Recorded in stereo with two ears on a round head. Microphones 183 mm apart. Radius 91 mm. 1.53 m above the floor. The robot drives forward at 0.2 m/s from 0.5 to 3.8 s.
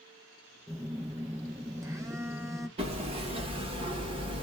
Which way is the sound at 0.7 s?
15° right (ahead or behind).